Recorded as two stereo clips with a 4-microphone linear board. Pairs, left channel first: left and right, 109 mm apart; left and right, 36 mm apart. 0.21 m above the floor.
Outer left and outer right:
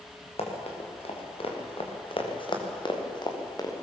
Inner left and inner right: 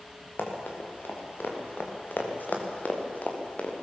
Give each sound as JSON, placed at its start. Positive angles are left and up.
{"t": 0.4, "sound": "running footsteps", "side_deg": 70, "distance_m": 5.5}